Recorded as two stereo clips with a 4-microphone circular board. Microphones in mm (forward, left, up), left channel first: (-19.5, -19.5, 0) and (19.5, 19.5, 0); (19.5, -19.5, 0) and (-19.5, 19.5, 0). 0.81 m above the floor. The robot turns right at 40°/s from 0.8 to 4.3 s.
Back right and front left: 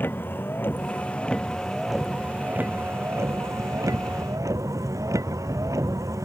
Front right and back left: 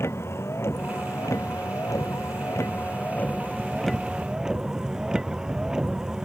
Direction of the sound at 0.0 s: 80° right.